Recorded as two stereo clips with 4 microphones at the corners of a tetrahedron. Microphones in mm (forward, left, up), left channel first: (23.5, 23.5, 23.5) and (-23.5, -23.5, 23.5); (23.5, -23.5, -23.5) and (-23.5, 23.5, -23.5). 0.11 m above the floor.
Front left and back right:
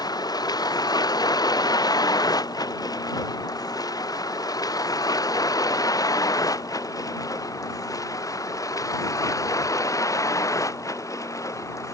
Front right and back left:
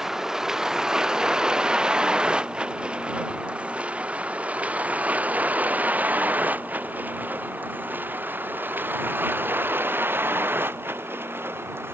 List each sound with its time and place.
0.0 s a vehicle: 50° left; by 11.9 s 80° left